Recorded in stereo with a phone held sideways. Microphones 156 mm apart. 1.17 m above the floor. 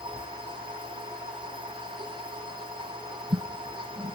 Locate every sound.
0.0 s a machine running: 30° right (ahead or behind)